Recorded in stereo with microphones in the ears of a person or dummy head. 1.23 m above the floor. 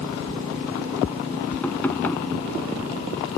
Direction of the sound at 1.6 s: 15° left (ahead or behind).